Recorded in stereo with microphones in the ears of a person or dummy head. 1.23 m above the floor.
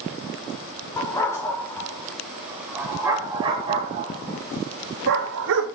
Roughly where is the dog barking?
Centre.